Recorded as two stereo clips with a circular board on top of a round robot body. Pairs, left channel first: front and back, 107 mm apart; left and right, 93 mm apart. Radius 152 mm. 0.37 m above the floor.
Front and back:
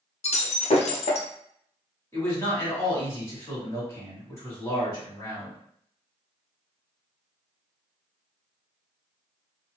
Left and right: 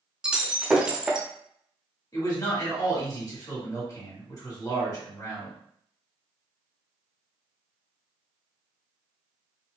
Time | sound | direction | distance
0.2 | breaking glass | 10° right | 0.6 m
2.1 | a man speaking | 55° left | 1.8 m